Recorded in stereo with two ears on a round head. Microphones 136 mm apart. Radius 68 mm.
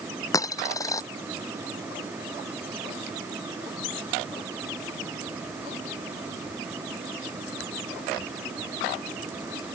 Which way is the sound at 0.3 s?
25° left (ahead or behind).